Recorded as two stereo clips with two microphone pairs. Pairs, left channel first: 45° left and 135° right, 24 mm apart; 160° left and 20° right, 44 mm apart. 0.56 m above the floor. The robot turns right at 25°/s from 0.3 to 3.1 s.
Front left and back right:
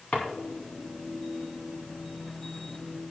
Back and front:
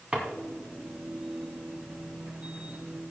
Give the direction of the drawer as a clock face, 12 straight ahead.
11 o'clock.